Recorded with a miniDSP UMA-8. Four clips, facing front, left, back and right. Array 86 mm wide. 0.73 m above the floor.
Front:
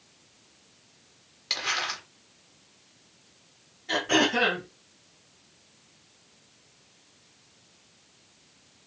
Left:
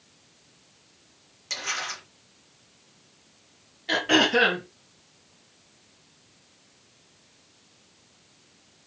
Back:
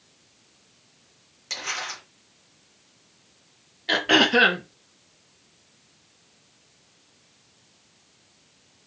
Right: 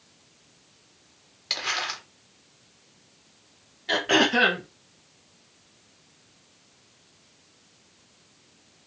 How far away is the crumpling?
About 1.2 m.